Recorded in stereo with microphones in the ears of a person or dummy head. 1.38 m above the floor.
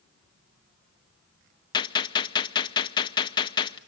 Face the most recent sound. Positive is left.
turn(degrees=25)  # may be behind; listen again after turning